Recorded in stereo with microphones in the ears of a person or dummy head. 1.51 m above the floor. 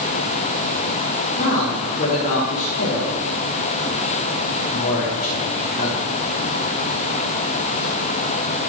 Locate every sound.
1.4 s a man speaking: 45° left (ahead or behind), 5 m